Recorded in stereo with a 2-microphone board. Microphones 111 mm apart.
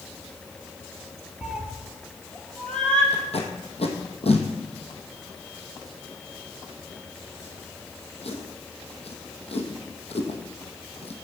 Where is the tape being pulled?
65° left (ahead or behind), 1.8 m.